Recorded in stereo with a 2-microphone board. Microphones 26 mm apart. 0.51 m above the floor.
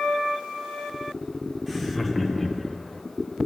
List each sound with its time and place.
1.7 s laughter: 5° left (ahead or behind), 1.3 m; by 3.0 s 10° left (ahead or behind), 2 m